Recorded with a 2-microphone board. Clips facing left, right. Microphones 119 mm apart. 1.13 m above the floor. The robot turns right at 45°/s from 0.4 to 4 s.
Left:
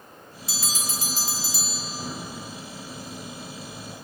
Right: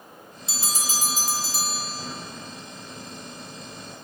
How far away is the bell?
About 0.6 m.